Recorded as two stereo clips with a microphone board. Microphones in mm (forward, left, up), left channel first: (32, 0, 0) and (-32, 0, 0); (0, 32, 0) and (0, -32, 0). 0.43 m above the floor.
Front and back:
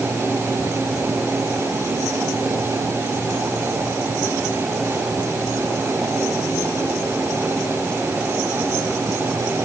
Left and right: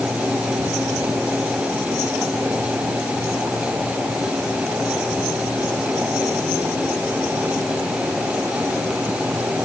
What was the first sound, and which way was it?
Only background noise.